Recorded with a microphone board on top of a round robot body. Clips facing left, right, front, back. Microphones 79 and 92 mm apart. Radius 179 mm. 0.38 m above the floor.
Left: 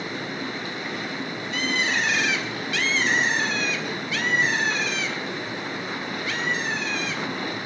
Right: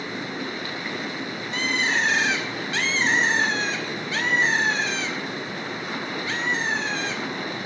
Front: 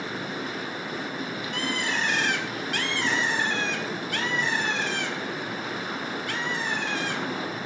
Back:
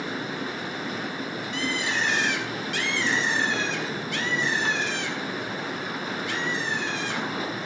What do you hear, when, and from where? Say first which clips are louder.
1.5 s a bird: right 1 dB, back 1 dB; 35° right, 4 m